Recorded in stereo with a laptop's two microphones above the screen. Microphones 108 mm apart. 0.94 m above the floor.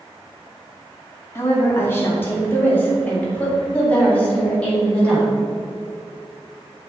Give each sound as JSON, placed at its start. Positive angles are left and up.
{"t": 1.4, "sound": "a woman speaking", "side_deg": 25, "distance_m": 2.5}